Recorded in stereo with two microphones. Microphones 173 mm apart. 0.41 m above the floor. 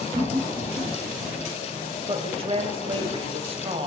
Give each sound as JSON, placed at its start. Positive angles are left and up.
{"t": 0.1, "sound": "laughter", "side_deg": -30, "distance_m": 4.5}
{"t": 2.1, "sound": "a woman speaking", "side_deg": -35, "distance_m": 2.5}